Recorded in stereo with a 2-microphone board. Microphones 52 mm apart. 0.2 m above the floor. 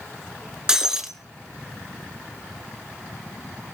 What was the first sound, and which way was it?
Breaking glass, 15° right (ahead or behind).